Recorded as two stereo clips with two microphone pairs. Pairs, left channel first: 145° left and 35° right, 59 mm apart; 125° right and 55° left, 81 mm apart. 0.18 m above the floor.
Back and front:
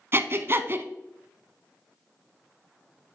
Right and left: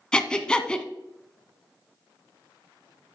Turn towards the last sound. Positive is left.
turn(degrees=-50)